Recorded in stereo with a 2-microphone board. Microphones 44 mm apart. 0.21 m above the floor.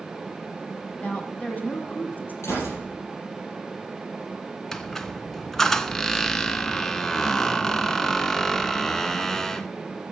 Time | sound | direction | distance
1.0 | a woman speaking | 25° left (ahead or behind) | 1.2 m
2.4 | a gunshot | 80° left | 4.5 m
4.7 | a squeak | 10° left (ahead or behind) | 0.5 m